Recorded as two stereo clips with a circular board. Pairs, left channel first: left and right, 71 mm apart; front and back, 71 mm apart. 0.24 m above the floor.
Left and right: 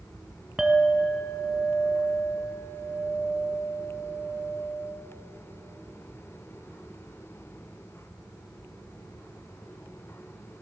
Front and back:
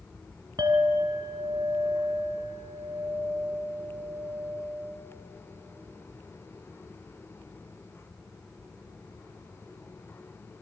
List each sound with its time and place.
0.6 s a clink: 175° right, 1.7 m